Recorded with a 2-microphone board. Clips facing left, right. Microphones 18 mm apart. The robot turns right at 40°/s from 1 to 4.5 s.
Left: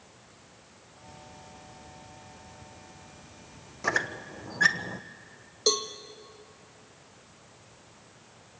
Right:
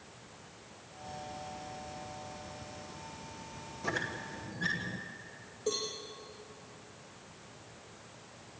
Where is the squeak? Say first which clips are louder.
Left 7 dB; 45° left (ahead or behind), 1.2 m; by 5.0 s 75° left (ahead or behind), 1.2 m.